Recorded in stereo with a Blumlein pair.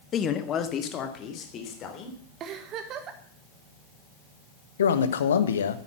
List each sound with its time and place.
0.1 s a man speaking: 25° left, 1.3 m; by 2.2 s 30° left, 3.5 m
2.4 s a giggle: 30° right, 1.4 m
4.8 s a man speaking: 65° left, 1.2 m